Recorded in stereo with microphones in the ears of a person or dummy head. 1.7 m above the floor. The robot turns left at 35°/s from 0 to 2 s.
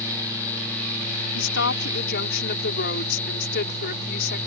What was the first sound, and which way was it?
A woman speaking, 80° left.